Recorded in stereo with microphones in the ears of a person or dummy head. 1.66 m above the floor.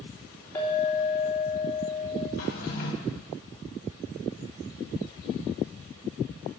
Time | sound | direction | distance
0.6 | a clink | 20° left (ahead or behind) | 3.5 m
2.4 | a drawer | 50° left (ahead or behind) | 2.5 m